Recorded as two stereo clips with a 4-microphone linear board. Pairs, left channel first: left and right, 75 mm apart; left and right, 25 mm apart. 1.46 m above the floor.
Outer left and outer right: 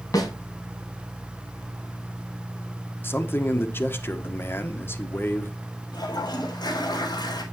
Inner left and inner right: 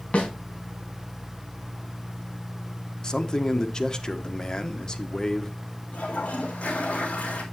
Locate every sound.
0.1 s a snare drum: 45° left (ahead or behind), 4.5 m
3.0 s a man speaking: 30° left (ahead or behind), 1.3 m
5.9 s a toilet flushing: 65° left (ahead or behind), 4 m